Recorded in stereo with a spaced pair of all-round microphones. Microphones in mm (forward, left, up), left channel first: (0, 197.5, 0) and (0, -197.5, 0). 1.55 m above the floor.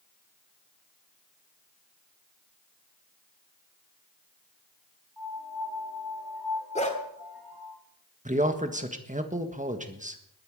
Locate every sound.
5.2 s a piano: 70° right (ahead or behind), 4.5 m
6.8 s a dog barking: 15° left (ahead or behind), 2 m
8.2 s a man speaking: 20° right (ahead or behind), 1.5 m